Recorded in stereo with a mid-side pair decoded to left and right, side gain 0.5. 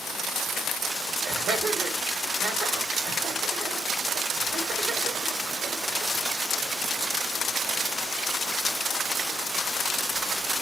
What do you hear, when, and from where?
1.2 s laughter: 55° right, 1.5 m